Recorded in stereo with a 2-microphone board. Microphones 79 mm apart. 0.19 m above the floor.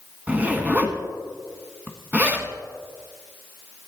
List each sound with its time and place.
0.3 s a zipper: 20° right (ahead or behind), 1.3 m